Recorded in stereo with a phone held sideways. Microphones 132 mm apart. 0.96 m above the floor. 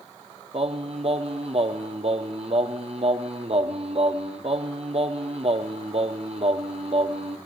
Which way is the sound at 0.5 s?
50° right (ahead or behind).